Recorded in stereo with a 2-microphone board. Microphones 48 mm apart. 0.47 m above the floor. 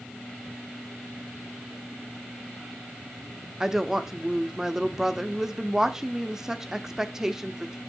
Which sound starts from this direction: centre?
A woman speaking, at 3.6 s.